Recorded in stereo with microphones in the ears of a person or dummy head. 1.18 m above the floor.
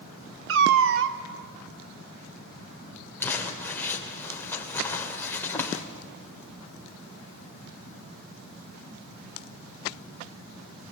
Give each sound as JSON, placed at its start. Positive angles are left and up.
{"t": 0.5, "sound": "a cat meowing", "side_deg": -65, "distance_m": 1.0}
{"t": 3.2, "sound": "crumpling", "side_deg": 10, "distance_m": 2.5}